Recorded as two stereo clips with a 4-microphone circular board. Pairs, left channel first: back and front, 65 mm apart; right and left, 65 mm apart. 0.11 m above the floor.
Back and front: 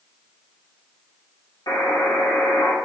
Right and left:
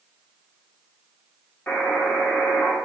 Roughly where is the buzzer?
Behind right.